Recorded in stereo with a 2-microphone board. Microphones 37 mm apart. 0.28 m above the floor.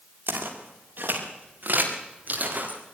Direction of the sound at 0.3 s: 65° right (ahead or behind).